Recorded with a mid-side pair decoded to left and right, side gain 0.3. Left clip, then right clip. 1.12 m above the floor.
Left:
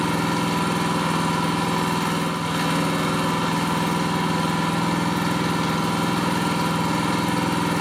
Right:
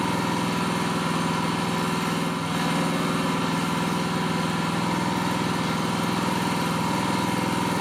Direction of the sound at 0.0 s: 65° left.